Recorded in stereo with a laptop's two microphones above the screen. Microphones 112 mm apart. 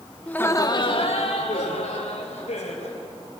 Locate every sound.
0.3 s laughter: 10° left (ahead or behind), 1.5 m; by 3.0 s 80° left, 4 m